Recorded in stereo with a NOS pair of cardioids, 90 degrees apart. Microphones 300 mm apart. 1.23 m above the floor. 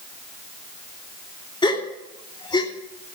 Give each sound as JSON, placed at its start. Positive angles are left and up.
{"t": 1.6, "sound": "a gasp", "azimuth_deg": 15, "distance_m": 2.0}